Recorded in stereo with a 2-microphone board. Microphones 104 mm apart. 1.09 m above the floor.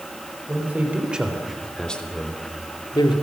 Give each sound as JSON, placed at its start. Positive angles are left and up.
{"t": 0.5, "sound": "a man speaking", "side_deg": -15, "distance_m": 4.5}